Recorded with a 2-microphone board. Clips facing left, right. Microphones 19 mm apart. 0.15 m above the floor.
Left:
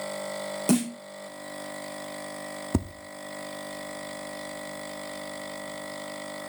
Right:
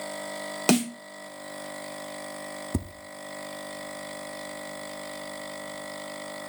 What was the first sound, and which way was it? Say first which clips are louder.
A snare drum: right 2 dB; 50° right (ahead or behind).